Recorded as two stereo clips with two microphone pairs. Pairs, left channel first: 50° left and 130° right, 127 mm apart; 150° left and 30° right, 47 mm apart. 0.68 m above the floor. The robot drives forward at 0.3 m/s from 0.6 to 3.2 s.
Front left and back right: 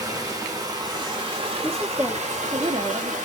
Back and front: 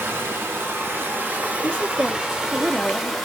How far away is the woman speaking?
About 0.6 m.